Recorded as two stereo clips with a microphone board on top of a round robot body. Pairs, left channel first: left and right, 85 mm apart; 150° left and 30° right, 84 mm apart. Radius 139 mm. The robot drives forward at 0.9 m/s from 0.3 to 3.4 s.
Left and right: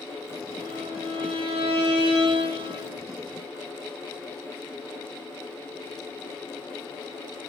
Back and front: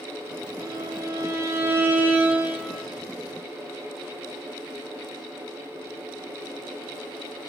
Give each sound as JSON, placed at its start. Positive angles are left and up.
{"t": 0.6, "sound": "a violin", "azimuth_deg": -80, "distance_m": 3.5}